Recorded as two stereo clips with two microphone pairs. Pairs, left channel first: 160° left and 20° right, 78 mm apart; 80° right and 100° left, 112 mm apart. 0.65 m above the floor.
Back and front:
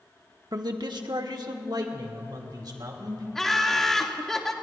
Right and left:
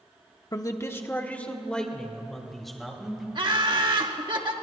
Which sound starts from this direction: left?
Laughter, at 3.4 s.